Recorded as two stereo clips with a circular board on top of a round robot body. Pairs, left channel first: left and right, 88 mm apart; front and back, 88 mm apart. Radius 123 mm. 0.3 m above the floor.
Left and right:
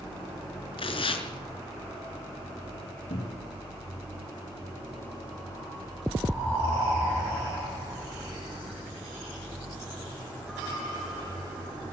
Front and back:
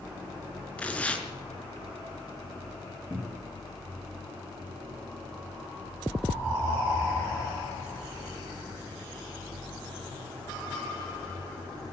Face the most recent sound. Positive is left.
turn(degrees=105)